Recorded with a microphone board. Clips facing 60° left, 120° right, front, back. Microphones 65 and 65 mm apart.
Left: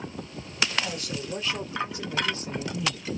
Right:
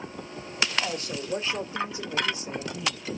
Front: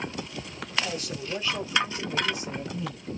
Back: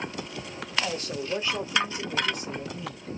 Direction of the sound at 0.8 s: 160° right.